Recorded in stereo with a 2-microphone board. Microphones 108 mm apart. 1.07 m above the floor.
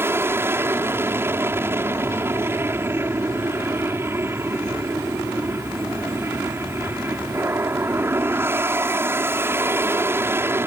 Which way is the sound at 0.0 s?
25° right (ahead or behind).